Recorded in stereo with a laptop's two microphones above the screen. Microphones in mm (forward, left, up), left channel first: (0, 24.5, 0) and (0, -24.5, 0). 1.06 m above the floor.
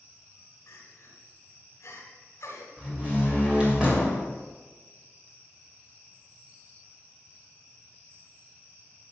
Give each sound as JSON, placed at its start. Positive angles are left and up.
{"t": 0.7, "sound": "crying", "side_deg": 60, "distance_m": 3.0}
{"t": 2.8, "sound": "a door slam", "side_deg": -25, "distance_m": 2.5}